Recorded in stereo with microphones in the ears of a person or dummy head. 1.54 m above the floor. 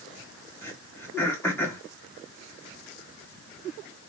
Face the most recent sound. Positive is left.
turn(degrees=15)  # may be behind; listen again after turning